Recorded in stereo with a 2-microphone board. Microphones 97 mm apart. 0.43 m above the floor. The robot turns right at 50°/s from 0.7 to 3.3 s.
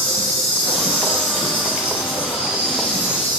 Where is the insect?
10° left, 2 m; by 3.4 s 140° left, 2 m.